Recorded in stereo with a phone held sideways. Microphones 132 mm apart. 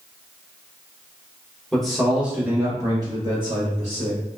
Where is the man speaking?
5° left (ahead or behind), 1.0 m; by 4.2 s 50° right (ahead or behind), 1.1 m.